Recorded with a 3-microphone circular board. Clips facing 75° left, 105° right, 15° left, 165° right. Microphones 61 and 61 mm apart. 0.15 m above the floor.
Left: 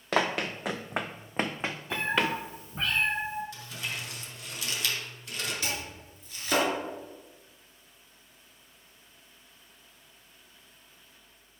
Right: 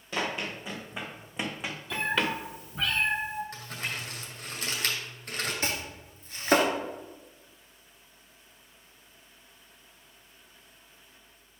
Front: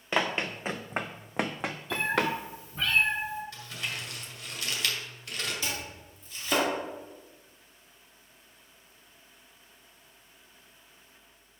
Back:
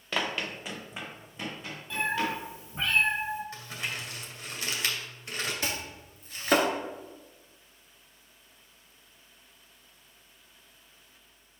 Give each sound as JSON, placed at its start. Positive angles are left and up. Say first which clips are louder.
{"t": 0.1, "sound": "running footsteps", "louder": "left 5 dB, front 3 dB", "azimuth_deg": 85, "distance_m": 1.0}
{"t": 1.9, "sound": "a cat meowing", "louder": "even, front 1 dB", "azimuth_deg": 130, "distance_m": 2.0}
{"t": 3.5, "sound": "crumpling", "louder": "right 1 dB, back 1 dB", "azimuth_deg": -120, "distance_m": 2.0}
{"t": 5.6, "sound": "chopping", "louder": "right 2 dB, back 1 dB", "azimuth_deg": -140, "distance_m": 1.9}